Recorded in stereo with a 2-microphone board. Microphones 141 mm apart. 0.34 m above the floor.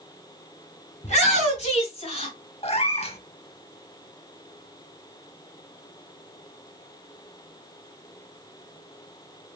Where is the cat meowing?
40° left (ahead or behind), 0.7 m.